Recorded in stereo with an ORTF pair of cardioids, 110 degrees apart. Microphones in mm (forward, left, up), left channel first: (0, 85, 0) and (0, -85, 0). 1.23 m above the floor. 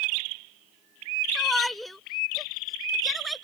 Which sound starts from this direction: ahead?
A shout, at 1.4 s.